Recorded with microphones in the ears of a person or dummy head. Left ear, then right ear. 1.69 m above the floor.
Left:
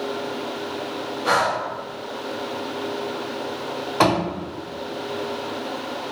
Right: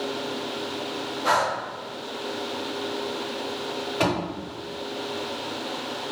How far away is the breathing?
About 1.0 m.